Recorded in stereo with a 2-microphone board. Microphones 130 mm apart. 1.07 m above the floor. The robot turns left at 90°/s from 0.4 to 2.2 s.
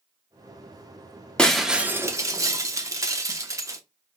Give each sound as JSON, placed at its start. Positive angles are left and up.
{"t": 1.4, "sound": "breaking glass", "side_deg": 5, "distance_m": 0.6}